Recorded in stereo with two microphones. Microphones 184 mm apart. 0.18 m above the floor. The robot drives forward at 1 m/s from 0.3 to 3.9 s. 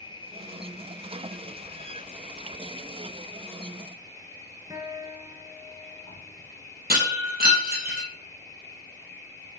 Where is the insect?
25° left (ahead or behind), 1.6 m; by 9.6 s 15° left (ahead or behind), 2.5 m.